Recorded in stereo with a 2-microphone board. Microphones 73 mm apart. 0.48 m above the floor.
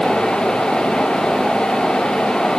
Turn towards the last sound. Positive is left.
No sound to turn to.